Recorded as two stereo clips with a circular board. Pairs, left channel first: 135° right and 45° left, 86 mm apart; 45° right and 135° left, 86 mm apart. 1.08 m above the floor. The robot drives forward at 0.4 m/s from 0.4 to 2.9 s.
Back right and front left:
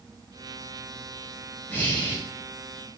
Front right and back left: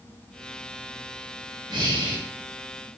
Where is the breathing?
160° left, 1.1 m.